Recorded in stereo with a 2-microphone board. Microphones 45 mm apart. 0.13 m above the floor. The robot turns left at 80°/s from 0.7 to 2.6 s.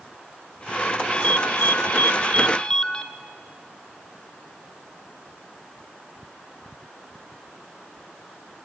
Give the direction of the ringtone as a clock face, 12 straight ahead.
7 o'clock.